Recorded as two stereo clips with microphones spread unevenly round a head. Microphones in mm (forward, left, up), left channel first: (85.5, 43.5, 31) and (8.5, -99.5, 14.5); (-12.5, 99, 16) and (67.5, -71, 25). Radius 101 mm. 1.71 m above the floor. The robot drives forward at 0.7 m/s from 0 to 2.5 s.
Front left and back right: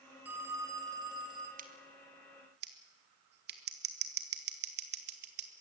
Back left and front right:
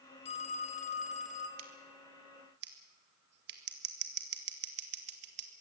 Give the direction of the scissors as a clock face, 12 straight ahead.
3 o'clock.